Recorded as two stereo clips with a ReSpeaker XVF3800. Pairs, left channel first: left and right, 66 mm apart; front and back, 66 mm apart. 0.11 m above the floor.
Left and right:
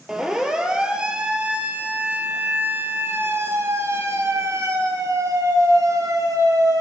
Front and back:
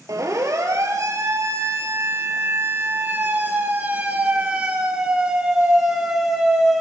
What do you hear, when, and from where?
0.1 s a siren: 175° right, 3.5 m; by 6.8 s 90° right, 3.5 m